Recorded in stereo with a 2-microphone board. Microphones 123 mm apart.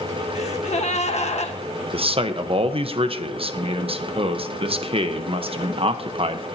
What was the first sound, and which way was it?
A gasp, 65° left (ahead or behind).